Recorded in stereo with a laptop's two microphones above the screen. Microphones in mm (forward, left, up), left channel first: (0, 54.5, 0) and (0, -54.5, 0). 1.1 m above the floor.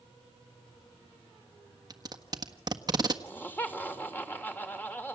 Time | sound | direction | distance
1.9 | tape being pulled | 35° right (ahead or behind) | 1.5 m
3.2 | laughter | 15° left (ahead or behind) | 3 m